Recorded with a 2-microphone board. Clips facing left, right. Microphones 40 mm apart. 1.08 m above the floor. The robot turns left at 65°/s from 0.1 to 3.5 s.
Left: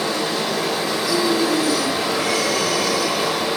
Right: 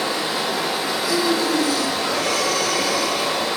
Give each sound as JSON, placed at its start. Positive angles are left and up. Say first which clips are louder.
{"t": 0.0, "sound": "running water", "louder": "left 1 dB", "side_deg": -20, "distance_m": 0.8}
{"t": 1.0, "sound": "breathing", "louder": "left 1 dB", "azimuth_deg": -15, "distance_m": 1.3}